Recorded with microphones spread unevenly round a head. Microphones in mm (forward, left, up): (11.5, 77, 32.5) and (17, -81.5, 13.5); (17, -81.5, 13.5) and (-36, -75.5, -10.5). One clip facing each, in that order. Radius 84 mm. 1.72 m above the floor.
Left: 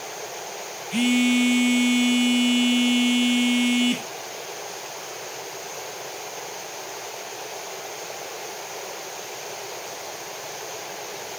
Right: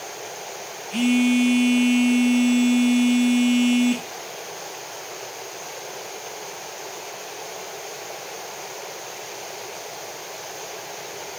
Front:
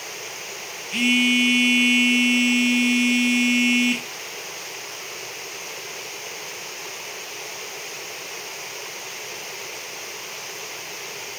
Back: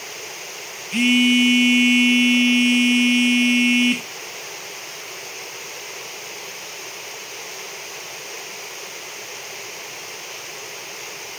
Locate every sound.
0.9 s a phone buzzing: 90° left, 1.1 m